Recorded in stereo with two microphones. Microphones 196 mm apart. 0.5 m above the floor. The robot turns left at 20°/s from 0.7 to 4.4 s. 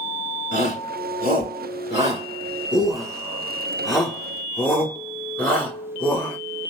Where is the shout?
50° right (ahead or behind), 1.9 m; by 6.4 s 10° left (ahead or behind), 1.9 m.